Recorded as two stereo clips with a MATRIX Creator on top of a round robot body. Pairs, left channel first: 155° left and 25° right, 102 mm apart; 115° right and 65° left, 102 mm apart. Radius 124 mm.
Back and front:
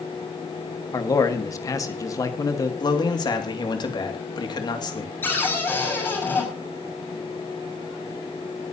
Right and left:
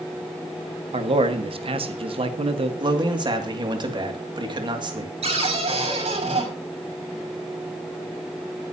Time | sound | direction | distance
0.9 | a man speaking | 100° left | 1.7 m
2.8 | a man speaking | 110° left | 2.5 m
5.2 | a cupboard door | 90° left | 6 m